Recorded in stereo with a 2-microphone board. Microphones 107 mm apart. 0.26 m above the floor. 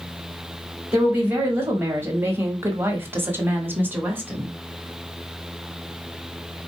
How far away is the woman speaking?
About 1.2 m.